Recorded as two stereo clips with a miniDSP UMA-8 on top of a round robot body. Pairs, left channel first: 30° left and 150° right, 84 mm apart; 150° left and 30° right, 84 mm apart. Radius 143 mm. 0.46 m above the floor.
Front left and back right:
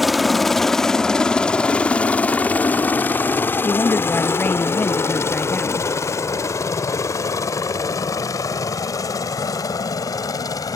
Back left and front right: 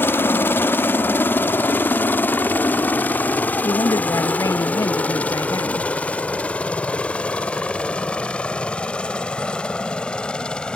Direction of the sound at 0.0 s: 125° left.